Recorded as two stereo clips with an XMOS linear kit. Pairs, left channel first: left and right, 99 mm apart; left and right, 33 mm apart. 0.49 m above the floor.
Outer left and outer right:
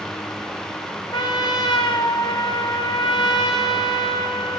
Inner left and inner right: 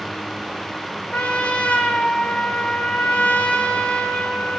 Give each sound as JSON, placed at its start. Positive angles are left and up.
{"t": 1.1, "sound": "a trumpet", "side_deg": 45, "distance_m": 0.8}